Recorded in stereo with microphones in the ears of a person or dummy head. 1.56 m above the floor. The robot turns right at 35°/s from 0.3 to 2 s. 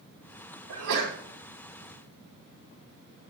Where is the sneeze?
75° right (ahead or behind), 2 m; by 1.2 s 60° right (ahead or behind), 2 m.